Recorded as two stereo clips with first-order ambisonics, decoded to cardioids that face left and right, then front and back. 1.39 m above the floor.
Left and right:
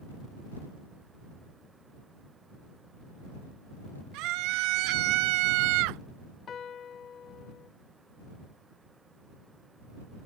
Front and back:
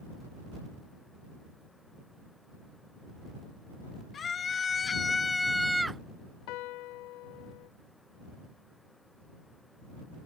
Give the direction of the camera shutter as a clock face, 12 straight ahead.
No camera shutter in this recording.